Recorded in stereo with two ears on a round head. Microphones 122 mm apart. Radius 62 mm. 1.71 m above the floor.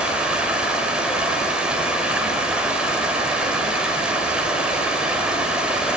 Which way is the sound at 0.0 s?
5° right (ahead or behind).